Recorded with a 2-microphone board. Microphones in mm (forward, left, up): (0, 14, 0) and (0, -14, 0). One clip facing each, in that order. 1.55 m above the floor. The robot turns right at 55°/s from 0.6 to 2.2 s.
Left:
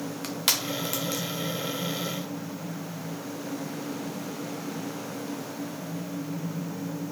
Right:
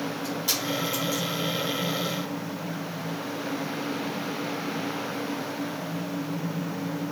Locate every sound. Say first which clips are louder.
0.2 s crushing: left 2 dB; 65° left (ahead or behind), 0.8 m; by 1.2 s 50° left (ahead or behind), 0.8 m